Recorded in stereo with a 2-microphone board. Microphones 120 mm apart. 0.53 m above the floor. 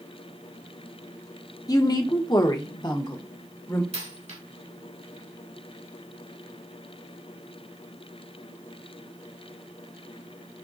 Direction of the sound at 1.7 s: 35° left (ahead or behind).